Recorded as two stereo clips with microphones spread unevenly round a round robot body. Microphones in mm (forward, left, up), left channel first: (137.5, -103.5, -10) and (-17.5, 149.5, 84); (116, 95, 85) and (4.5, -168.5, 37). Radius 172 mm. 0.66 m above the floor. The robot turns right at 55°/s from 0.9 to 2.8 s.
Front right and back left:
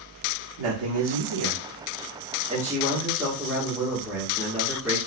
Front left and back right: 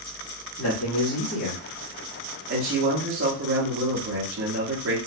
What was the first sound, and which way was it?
A man speaking, 115° left.